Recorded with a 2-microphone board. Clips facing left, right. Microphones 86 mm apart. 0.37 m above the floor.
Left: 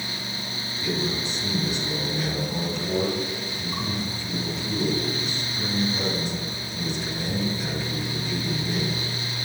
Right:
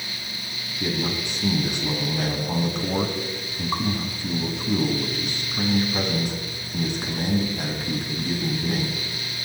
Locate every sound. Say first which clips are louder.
0.8 s a man speaking: right 1 dB; 55° right (ahead or behind), 4 m